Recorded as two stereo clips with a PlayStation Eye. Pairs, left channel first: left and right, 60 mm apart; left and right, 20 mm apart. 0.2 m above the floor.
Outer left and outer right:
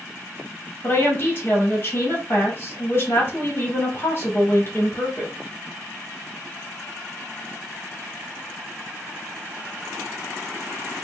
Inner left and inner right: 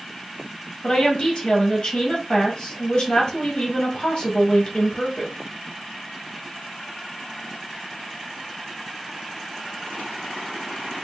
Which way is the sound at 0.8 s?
35° left (ahead or behind).